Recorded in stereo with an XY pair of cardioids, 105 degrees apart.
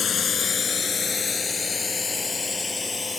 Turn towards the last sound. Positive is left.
turn(degrees=25)